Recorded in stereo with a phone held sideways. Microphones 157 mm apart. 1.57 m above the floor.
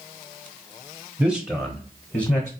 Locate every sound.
1.2 s a man speaking: 5° right (ahead or behind), 0.8 m; by 2.5 s 40° left (ahead or behind), 1.0 m